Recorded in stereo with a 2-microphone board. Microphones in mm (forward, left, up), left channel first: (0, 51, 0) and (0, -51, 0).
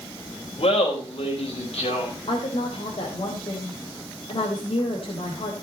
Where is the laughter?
80° left, 4.5 m.